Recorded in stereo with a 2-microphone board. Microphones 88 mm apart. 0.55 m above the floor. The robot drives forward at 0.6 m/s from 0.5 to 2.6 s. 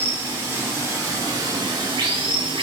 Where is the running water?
30° right (ahead or behind), 1.5 m; by 2.6 s 90° right, 0.8 m.